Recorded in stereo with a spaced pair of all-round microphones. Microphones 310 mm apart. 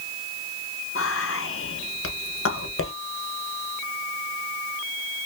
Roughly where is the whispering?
Left.